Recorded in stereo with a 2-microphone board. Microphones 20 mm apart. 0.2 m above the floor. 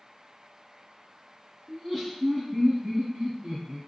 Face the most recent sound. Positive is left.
turn(degrees=-60)  # may be behind; listen again after turning